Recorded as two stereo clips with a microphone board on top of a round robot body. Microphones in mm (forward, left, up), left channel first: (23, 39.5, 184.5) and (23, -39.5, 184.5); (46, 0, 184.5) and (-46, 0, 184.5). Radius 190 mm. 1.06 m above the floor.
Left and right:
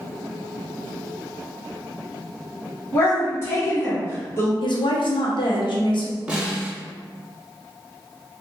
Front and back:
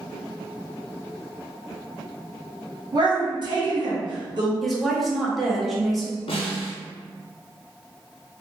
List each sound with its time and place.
2.9 s a woman speaking: 145° left, 1.6 m
4.6 s a woman speaking: 90° left, 1.0 m
6.3 s a snare drum: 10° right, 0.8 m